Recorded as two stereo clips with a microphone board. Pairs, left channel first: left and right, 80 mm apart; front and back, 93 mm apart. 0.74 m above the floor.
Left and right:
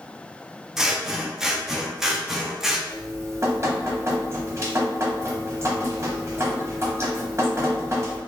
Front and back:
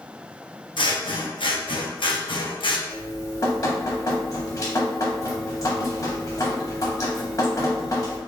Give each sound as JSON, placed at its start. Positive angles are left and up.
{"t": 0.8, "sound": "scissors", "azimuth_deg": -5, "distance_m": 0.6}
{"t": 2.9, "sound": "dripping", "azimuth_deg": -45, "distance_m": 0.9}